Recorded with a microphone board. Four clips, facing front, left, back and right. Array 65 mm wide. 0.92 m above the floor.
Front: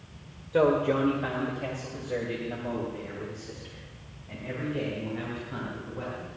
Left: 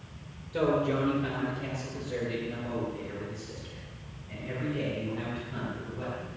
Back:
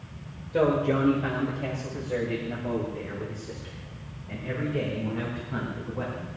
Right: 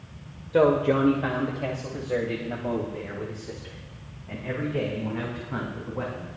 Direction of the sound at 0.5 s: 75° right.